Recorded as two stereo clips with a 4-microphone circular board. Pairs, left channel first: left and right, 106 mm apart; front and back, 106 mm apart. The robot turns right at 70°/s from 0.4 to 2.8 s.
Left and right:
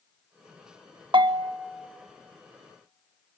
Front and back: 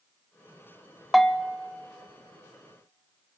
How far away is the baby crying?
No baby crying in this recording.